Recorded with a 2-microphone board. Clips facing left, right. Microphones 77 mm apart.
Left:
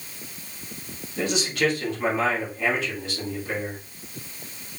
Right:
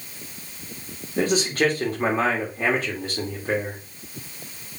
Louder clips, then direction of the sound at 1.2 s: Right 3 dB; 40° right (ahead or behind).